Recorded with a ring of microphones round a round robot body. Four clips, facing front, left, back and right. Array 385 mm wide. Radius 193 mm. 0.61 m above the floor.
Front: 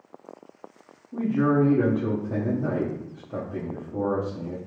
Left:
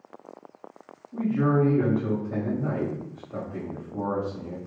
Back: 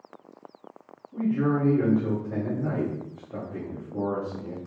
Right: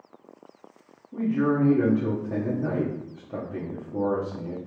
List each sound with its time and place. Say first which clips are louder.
1.1 s a man speaking: even, front 3 dB; 45° right, 1.3 m